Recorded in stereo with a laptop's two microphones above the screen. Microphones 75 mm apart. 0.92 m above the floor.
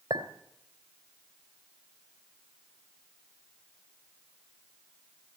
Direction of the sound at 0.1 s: 70° right (ahead or behind).